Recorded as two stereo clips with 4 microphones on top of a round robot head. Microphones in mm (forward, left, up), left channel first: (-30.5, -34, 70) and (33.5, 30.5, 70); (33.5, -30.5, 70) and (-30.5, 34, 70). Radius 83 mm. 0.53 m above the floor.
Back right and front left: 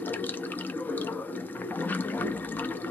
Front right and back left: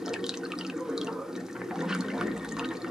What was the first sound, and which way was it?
Running water, 155° right.